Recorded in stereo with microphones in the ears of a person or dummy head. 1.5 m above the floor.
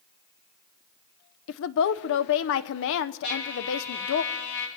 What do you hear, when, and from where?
1.5 s a woman speaking: 75° left (ahead or behind), 0.7 m
3.2 s a trumpet: 70° left (ahead or behind), 2.5 m